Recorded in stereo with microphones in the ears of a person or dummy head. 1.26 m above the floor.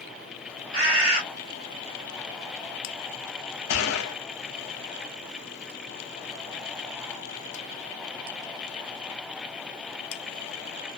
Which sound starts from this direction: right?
A bird, at 0.7 s.